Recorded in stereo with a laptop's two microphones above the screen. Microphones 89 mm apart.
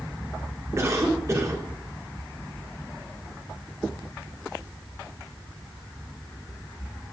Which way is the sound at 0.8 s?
35° right (ahead or behind).